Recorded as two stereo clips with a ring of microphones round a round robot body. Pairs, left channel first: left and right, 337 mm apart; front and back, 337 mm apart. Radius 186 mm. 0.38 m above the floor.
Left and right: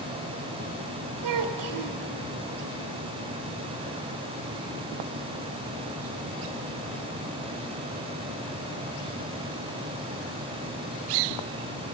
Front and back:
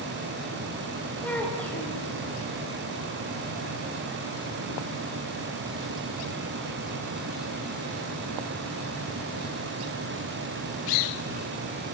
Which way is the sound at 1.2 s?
85° right.